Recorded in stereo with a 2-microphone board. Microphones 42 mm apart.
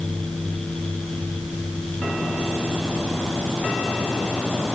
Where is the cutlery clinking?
No cutlery clinking in this recording.